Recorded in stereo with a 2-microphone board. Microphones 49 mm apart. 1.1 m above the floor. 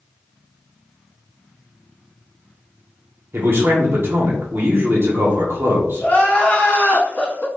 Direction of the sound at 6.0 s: 30° left (ahead or behind).